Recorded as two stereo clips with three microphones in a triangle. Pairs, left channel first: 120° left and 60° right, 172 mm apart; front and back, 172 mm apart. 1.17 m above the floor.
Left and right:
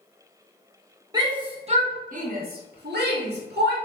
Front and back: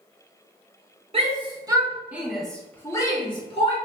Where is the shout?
130° right, 1.3 m; by 3.8 s 55° right, 1.4 m.